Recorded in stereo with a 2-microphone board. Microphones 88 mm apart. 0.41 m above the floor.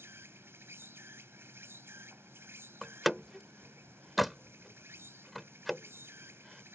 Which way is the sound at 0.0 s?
25° right (ahead or behind).